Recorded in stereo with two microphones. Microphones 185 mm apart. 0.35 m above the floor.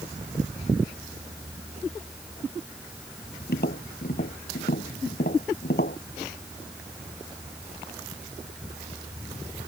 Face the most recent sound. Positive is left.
turn(degrees=60)  # may be behind; listen again after turning